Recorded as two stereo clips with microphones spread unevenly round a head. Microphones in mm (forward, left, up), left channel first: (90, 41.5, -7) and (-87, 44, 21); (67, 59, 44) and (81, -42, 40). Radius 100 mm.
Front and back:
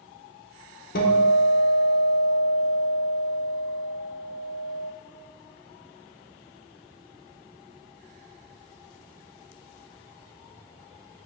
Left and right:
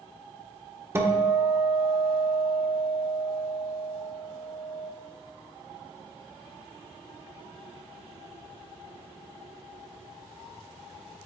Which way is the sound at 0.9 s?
15° right.